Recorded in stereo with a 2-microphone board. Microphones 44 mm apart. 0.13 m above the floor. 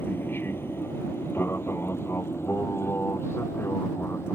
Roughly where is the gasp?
I don't hear a gasp.